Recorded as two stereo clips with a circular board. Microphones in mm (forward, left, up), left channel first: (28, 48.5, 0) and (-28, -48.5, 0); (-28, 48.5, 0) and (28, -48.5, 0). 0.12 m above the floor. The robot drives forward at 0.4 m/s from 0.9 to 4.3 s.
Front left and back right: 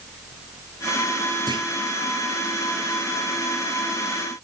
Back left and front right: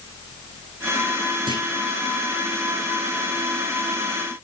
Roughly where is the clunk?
Right.